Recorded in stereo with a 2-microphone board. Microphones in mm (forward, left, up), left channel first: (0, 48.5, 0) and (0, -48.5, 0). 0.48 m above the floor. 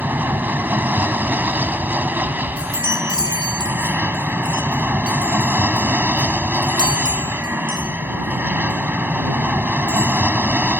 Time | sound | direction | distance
0.0 | an aircraft | 20° right (ahead or behind) | ?
2.6 | a chime | 50° left (ahead or behind) | ?